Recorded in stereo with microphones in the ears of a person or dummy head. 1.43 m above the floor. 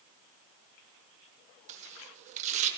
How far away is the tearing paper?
About 1.2 m.